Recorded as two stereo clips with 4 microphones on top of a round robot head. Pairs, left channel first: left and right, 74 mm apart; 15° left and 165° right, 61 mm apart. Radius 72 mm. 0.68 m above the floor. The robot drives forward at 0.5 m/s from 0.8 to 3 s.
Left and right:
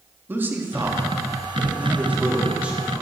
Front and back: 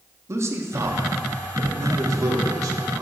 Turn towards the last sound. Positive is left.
turn(degrees=-165)